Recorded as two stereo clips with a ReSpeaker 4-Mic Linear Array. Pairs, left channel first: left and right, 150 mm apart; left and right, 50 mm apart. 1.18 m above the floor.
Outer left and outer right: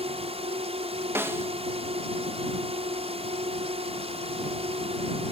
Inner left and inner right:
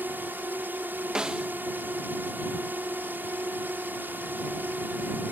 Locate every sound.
0.0 s a drone: 45° right (ahead or behind)
1.1 s a snare drum: 15° right (ahead or behind)